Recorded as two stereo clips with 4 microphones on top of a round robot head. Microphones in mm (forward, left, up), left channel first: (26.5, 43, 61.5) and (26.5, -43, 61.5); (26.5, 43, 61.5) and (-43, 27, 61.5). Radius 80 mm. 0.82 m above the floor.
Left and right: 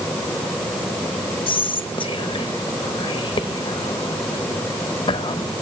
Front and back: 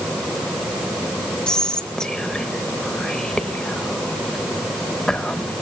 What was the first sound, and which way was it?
Whispering, 90° left.